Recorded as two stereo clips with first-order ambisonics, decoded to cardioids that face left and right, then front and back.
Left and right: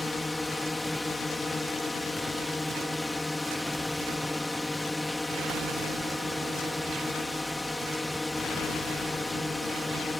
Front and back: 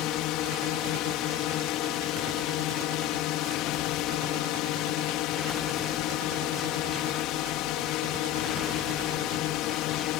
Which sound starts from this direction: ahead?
A drone, at 0.0 s.